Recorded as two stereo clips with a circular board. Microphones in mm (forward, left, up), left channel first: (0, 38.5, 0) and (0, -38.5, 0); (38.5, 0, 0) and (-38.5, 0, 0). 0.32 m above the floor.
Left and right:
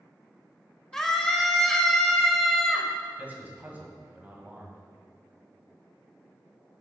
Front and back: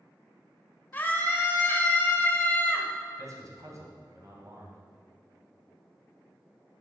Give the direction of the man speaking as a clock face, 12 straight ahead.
5 o'clock.